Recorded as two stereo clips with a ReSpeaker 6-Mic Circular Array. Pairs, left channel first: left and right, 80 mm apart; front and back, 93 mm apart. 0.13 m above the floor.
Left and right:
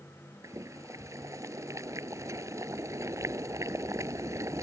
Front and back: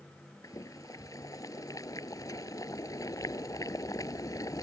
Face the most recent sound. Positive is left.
turn(degrees=-45)